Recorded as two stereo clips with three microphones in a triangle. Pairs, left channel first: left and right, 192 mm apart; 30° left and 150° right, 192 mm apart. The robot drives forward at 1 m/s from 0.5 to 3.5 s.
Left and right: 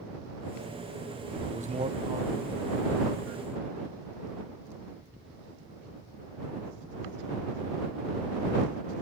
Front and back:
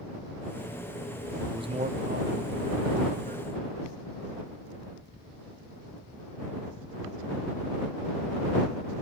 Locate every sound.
1.5 s a man speaking: 85° right, 0.7 m; by 3.5 s 170° right, 2 m